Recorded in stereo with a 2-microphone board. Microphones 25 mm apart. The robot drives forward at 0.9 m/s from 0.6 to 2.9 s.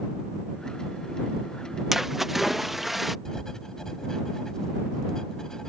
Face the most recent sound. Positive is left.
turn(degrees=25)  # may be behind; listen again after turning